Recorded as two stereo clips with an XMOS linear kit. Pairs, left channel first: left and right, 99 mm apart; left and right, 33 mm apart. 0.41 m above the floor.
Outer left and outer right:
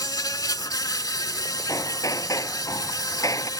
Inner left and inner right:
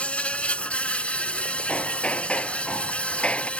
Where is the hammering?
35° left (ahead or behind).